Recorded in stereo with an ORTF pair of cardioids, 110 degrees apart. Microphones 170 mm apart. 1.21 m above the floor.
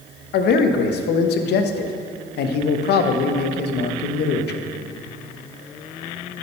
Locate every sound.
0.3 s a man speaking: 65° left, 0.9 m